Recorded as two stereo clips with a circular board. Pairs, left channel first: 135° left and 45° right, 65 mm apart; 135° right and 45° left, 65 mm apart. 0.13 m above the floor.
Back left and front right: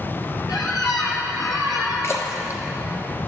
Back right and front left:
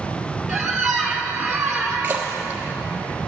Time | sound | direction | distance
0.5 | a squeak | 135° left | 1.5 m
2.0 | a splash | 100° left | 1.3 m